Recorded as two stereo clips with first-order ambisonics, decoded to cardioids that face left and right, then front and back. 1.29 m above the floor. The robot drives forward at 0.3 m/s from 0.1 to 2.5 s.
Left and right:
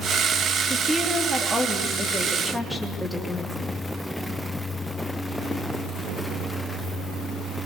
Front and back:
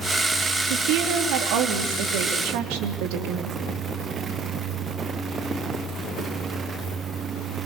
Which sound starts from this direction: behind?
A woman speaking, at 0.7 s.